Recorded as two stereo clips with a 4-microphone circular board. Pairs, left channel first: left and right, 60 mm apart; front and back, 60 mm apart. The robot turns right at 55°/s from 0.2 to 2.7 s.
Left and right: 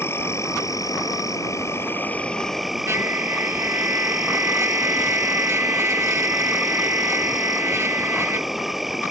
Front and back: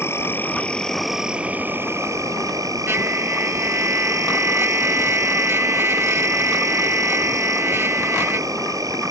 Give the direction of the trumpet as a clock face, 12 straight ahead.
4 o'clock.